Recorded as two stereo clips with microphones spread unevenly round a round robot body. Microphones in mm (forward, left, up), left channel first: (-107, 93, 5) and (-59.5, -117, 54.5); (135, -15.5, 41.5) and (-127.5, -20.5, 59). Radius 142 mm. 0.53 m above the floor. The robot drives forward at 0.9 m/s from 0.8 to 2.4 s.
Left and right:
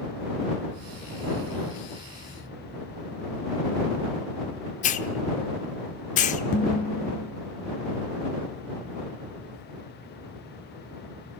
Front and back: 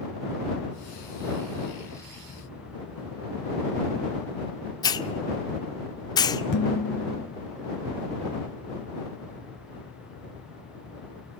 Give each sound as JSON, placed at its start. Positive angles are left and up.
{"t": 4.8, "sound": "a hiss", "azimuth_deg": 70, "distance_m": 1.0}
{"t": 6.5, "sound": "dishes clattering", "azimuth_deg": 50, "distance_m": 2.5}